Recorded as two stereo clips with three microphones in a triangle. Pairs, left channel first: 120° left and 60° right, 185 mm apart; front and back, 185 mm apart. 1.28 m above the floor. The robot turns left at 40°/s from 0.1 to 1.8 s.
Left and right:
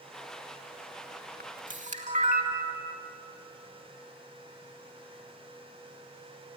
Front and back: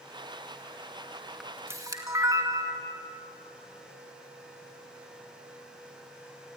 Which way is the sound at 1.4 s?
90° right.